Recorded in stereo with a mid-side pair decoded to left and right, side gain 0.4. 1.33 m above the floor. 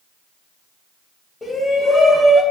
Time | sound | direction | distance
1.4 | a shout | 25° left | 1.8 m